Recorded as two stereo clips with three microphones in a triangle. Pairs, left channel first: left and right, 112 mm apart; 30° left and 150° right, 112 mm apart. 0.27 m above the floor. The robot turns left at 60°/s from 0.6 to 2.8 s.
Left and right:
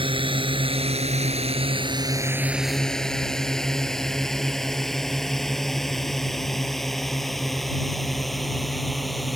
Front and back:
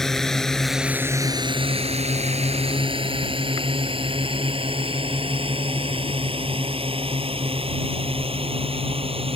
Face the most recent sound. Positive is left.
turn(degrees=180)